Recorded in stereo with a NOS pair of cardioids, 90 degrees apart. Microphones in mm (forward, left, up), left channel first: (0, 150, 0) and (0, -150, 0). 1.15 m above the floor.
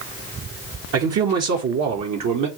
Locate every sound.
0.9 s a man speaking: 50° right, 1.1 m; by 2.5 s 65° right, 1.8 m